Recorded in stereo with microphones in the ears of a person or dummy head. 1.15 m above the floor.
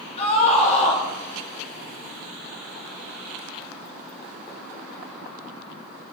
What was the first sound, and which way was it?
A scream, 35° left (ahead or behind).